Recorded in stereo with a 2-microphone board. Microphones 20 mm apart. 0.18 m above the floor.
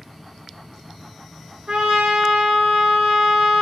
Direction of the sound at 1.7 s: 60° right (ahead or behind).